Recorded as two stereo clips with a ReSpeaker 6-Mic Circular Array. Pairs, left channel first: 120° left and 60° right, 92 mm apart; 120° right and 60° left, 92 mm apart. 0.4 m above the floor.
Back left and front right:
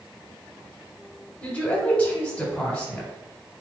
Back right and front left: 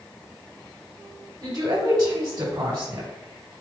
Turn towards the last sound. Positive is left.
turn(degrees=45)